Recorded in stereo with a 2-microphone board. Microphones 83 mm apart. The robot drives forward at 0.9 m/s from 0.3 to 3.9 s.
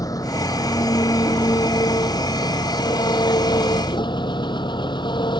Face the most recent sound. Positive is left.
turn(degrees=65)  # may be behind; listen again after turning